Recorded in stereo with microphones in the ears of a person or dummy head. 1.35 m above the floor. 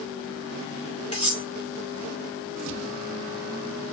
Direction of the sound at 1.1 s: 40° left (ahead or behind).